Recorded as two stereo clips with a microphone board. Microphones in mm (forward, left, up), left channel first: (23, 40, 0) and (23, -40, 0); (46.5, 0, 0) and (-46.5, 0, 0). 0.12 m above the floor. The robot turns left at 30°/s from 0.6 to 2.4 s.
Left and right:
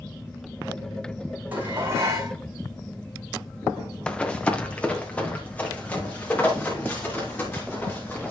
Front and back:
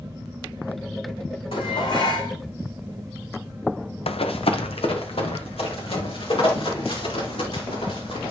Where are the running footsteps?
10° left, 1.0 m; by 8.3 s 20° left, 7 m.